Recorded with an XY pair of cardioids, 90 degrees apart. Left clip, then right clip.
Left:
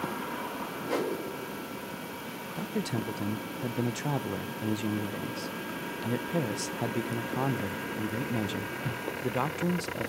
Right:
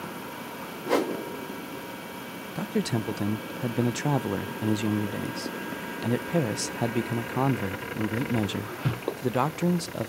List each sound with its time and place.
0.9 s a whoosh: 50° right, 2 m
2.5 s a man speaking: 35° right, 0.6 m